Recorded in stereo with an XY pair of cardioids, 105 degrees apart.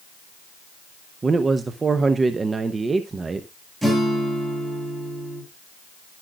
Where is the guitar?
10° right, 8 m.